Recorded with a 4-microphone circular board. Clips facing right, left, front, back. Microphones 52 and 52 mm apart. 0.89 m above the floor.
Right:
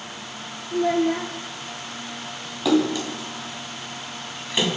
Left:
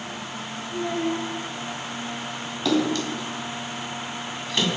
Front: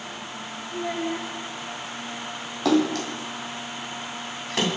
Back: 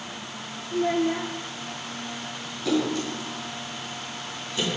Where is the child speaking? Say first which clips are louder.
Right 6 dB, back 5 dB; 110° right, 1.0 m.